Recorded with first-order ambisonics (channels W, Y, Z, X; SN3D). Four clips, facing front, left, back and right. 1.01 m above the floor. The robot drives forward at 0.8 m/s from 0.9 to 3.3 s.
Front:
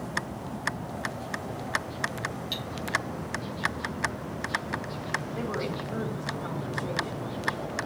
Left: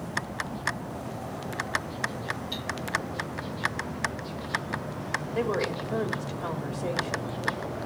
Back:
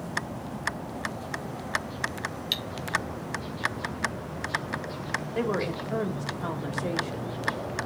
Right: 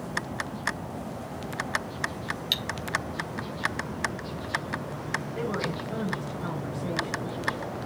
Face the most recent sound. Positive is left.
turn(degrees=155)